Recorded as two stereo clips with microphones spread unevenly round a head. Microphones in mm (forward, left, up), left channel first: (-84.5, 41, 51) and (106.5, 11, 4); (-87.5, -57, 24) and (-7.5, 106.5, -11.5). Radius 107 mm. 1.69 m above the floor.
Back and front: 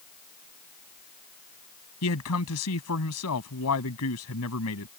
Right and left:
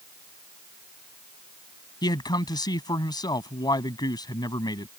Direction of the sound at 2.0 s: 175° left.